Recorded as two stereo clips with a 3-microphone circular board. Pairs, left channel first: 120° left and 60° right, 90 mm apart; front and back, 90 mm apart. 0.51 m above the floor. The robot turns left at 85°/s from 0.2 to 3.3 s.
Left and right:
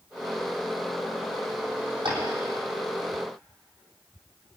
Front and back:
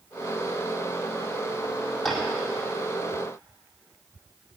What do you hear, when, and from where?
2.0 s tapping: 85° right, 4.5 m; by 2.2 s 100° right, 4.5 m